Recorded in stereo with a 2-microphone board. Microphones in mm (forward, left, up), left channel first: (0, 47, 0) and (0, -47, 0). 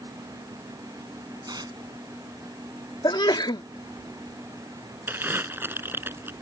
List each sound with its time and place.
1.5 s tearing paper: 45° right (ahead or behind)
3.0 s a sneeze: 55° left (ahead or behind)
5.1 s crumpling: 20° right (ahead or behind)